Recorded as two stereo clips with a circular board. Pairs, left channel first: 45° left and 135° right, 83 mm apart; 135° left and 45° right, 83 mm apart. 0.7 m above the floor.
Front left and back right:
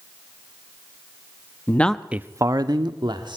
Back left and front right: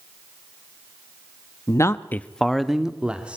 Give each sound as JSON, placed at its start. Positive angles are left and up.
{"t": 1.7, "sound": "a man speaking", "azimuth_deg": 100, "distance_m": 0.7}